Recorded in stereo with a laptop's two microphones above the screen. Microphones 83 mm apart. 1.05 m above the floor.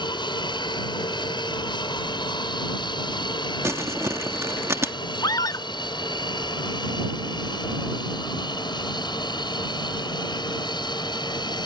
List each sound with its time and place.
0.0 s an aircraft: 65° left (ahead or behind); by 11.7 s 60° left (ahead or behind)
3.6 s crumpling: 35° right (ahead or behind)
5.2 s a scream: 50° left (ahead or behind)